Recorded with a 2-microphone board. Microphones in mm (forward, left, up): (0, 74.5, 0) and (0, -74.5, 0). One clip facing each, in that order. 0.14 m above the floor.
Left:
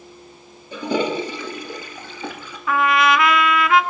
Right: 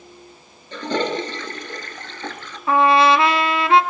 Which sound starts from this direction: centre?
A toilet flushing, at 0.7 s.